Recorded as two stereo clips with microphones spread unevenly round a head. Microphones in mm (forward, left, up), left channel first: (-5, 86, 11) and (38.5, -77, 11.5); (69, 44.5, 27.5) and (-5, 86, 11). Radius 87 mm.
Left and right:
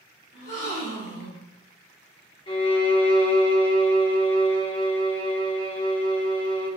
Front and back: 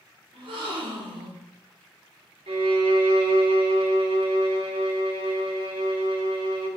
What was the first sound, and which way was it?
A gasp, 140° left.